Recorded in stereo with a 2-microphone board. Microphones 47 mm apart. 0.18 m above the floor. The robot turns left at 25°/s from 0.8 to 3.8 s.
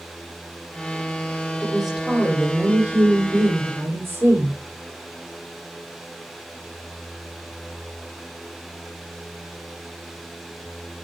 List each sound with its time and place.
1.6 s a woman speaking: 5° right, 8 m; by 4.6 s 60° right, 8 m